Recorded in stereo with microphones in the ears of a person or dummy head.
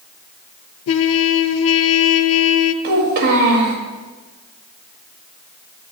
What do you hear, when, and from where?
0.9 s a trumpet: 70° left (ahead or behind), 0.7 m
2.8 s a child speaking: 55° right (ahead or behind), 2 m